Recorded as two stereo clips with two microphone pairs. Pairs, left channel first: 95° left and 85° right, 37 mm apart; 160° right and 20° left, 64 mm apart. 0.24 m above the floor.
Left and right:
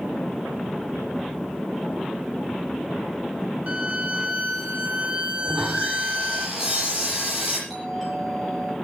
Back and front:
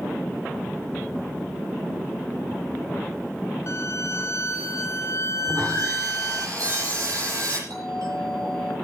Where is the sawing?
10° right, 8 m.